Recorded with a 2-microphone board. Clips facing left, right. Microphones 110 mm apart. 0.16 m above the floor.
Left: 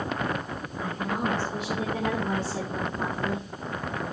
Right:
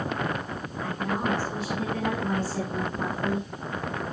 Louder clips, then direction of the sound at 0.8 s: Right 1 dB; 15° left (ahead or behind).